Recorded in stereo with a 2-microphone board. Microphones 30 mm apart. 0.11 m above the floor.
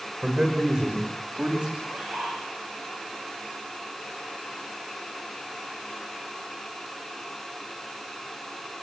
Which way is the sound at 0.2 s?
30° right (ahead or behind).